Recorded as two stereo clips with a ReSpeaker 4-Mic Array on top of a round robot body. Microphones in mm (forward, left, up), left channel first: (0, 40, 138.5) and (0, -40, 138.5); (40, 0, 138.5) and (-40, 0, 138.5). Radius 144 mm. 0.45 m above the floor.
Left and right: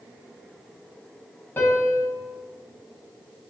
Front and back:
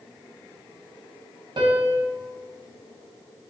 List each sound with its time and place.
1.6 s a piano: 155° left, 1.4 m